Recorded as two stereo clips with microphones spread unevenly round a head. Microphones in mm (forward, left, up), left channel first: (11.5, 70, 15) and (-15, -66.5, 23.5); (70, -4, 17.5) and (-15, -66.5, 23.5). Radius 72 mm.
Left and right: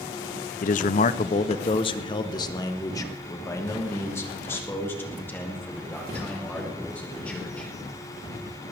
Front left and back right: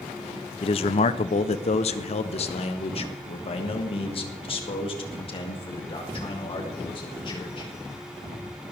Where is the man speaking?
70° left, 0.6 m; by 7.7 s straight ahead, 4 m.